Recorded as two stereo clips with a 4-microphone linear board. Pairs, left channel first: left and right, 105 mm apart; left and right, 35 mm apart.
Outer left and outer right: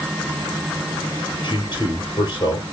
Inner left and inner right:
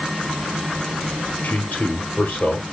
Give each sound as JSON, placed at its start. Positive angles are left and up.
{"t": 1.4, "sound": "a man speaking", "side_deg": 50, "distance_m": 2.5}